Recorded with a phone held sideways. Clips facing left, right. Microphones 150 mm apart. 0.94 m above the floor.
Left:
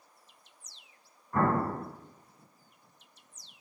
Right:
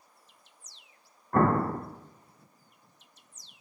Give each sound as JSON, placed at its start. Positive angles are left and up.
{"t": 1.3, "sound": "an explosion", "side_deg": -60, "distance_m": 0.5}